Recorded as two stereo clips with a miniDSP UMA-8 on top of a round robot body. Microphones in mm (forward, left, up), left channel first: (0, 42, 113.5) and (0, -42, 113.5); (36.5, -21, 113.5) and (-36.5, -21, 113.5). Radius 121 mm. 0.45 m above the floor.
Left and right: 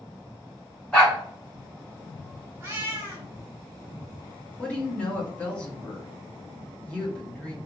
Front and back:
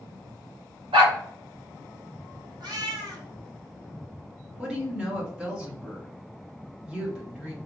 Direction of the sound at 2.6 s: 155° right.